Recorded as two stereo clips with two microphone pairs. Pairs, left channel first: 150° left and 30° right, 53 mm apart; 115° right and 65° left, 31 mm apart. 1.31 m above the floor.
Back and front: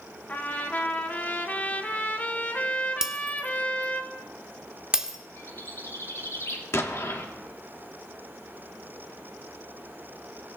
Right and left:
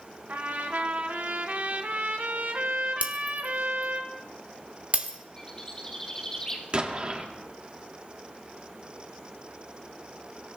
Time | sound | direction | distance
0.3 | a trumpet | 90° left | 1.5 m
3.0 | breaking glass | 45° left | 1.3 m
5.4 | a bird | 175° left | 2.5 m
6.7 | an explosion | 120° left | 1.6 m